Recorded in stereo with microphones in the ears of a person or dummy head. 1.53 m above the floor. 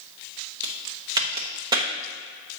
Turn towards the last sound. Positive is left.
turn(degrees=-25)  # may be behind; listen again after turning